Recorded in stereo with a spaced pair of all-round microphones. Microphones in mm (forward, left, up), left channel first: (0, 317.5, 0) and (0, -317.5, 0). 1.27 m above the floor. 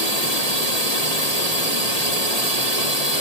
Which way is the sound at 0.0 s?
70° right (ahead or behind).